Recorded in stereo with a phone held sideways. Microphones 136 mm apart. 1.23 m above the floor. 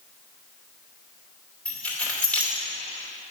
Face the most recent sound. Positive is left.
turn(degrees=10)  # may be behind; listen again after turning